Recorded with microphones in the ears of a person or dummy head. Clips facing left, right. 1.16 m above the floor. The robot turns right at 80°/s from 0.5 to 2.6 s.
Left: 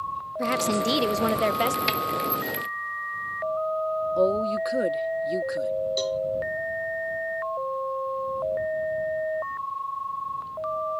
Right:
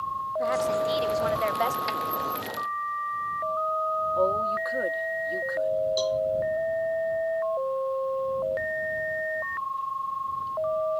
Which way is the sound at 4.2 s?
45° left (ahead or behind).